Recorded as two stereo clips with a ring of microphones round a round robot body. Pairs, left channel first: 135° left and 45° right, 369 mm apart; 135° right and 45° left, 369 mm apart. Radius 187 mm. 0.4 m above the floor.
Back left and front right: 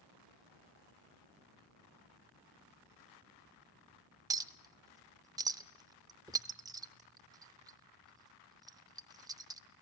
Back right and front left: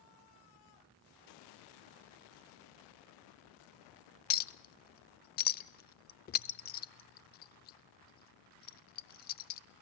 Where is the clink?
110° right, 0.5 m.